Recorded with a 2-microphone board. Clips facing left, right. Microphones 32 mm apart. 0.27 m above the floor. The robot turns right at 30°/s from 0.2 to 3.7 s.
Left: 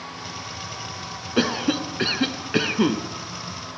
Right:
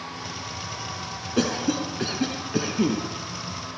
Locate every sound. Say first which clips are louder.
1.4 s a cough: left 2 dB; 35° left, 3 m; by 3.0 s 85° left, 3 m